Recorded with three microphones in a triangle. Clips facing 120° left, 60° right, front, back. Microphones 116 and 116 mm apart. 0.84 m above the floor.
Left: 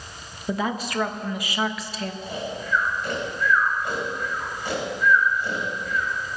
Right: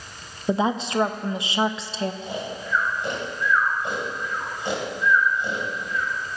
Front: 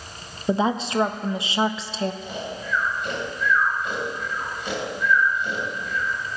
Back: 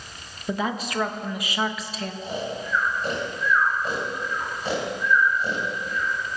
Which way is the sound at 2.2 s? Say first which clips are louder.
Even, back 2 dB; 125° right.